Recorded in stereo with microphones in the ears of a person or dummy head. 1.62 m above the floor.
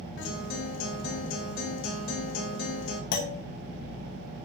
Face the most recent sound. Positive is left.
turn(degrees=60)  # may be behind; listen again after turning